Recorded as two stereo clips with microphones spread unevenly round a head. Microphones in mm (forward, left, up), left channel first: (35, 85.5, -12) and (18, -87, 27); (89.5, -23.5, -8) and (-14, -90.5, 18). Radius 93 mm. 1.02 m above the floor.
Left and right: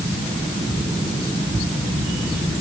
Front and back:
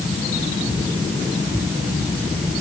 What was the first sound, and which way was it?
Only background noise.